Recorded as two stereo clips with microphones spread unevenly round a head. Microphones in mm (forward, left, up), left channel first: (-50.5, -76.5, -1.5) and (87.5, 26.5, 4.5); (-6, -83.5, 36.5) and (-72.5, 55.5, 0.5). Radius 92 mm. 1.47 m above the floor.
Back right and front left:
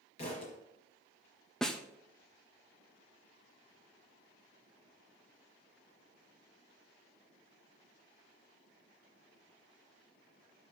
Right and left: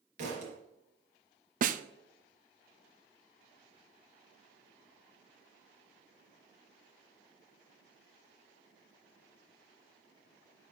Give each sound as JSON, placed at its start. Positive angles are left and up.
{"t": 0.2, "sound": "a thud", "azimuth_deg": 160, "distance_m": 3.5}
{"t": 1.6, "sound": "a snare drum", "azimuth_deg": 130, "distance_m": 0.7}